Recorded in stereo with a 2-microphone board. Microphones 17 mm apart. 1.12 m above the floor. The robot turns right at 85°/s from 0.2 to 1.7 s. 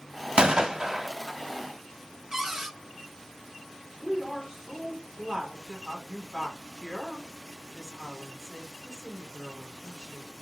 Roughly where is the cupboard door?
Right.